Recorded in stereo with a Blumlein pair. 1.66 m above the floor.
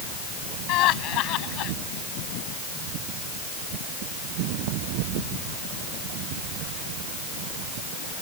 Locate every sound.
0.7 s laughter: 40° left